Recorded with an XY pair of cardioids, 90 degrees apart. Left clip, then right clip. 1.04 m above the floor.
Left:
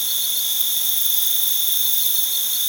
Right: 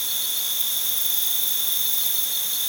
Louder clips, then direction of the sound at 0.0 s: Left 4 dB; 40° left.